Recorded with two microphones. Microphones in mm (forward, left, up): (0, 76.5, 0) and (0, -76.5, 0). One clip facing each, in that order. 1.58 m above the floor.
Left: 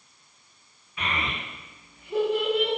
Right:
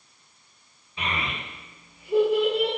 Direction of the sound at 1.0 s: 25° right (ahead or behind).